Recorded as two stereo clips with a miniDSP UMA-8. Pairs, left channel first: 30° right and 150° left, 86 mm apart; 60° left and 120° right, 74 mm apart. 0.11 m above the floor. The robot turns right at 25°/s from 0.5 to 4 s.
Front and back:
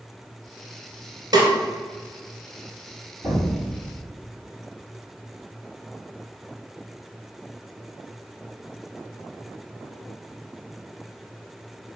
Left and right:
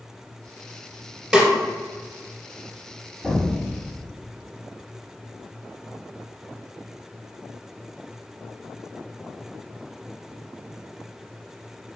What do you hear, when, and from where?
1.3 s a snare drum: 160° left, 1.5 m; by 1.5 s 165° left, 1.5 m
3.2 s an explosion: 155° left, 1.9 m; by 4.0 s 175° left, 1.9 m